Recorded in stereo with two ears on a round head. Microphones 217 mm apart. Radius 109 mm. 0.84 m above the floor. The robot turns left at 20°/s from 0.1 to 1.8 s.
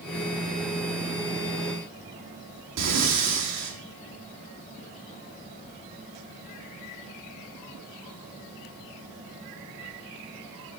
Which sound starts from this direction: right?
Breathing, at 2.8 s.